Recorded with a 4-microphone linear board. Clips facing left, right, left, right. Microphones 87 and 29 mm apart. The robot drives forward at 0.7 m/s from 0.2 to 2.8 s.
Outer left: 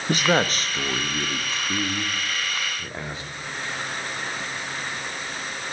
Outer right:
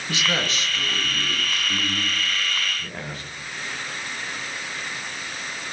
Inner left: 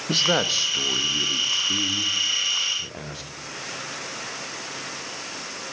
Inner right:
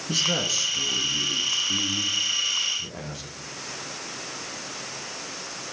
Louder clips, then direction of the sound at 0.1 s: Outer left 5 dB, inner left 4 dB; 45° left (ahead or behind).